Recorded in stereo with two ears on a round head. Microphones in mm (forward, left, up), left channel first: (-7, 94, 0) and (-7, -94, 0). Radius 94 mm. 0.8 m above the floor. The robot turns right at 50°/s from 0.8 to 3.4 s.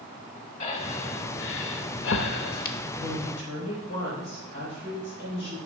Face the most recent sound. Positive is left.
turn(degrees=55)  # may be behind; listen again after turning